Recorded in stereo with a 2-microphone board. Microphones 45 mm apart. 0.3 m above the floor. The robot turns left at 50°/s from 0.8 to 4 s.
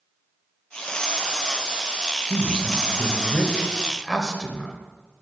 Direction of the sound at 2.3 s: 15° left (ahead or behind).